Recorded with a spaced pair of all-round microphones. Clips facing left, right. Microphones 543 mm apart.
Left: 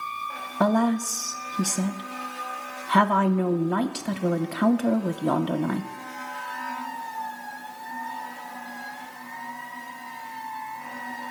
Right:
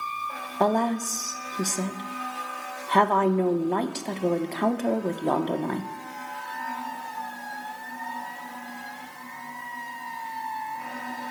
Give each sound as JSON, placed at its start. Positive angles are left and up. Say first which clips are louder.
{"t": 0.6, "sound": "a woman speaking", "louder": "left 3 dB", "side_deg": 35, "distance_m": 0.9}